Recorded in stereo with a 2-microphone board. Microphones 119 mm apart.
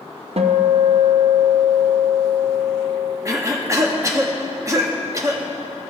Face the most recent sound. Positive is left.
turn(degrees=-25)  # may be behind; listen again after turning